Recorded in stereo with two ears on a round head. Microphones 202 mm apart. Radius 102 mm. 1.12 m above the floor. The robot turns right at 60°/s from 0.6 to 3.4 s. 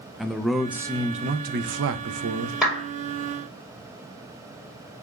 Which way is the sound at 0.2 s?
Straight behind.